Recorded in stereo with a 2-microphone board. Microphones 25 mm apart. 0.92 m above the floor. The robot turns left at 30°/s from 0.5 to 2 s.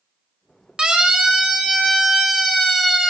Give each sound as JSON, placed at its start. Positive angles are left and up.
{"t": 0.8, "sound": "a siren", "side_deg": -40, "distance_m": 4.0}